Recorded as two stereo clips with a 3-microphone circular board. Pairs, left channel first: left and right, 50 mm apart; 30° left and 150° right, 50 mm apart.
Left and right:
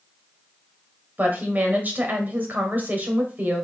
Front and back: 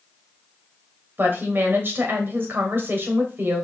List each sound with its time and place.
1.2 s a woman speaking: 130° right, 1.3 m